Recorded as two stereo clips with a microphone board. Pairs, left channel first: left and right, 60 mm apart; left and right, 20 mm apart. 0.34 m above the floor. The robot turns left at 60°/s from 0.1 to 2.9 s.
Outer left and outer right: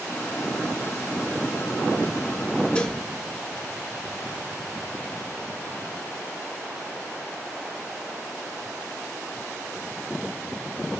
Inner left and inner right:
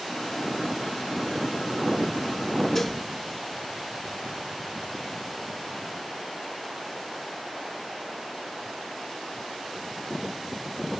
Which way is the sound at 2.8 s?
20° left (ahead or behind).